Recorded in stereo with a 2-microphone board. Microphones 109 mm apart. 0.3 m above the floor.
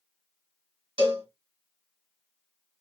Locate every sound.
1.0 s a cowbell: 55° right (ahead or behind), 1.6 m